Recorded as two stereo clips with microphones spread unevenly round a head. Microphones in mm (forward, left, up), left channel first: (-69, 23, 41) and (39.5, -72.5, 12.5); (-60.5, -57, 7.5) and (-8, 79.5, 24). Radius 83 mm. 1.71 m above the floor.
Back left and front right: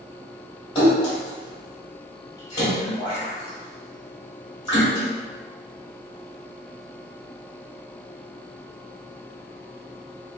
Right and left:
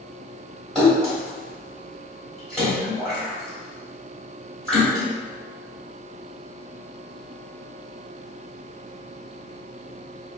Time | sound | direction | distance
0.8 | a splash | 160° left | 2.0 m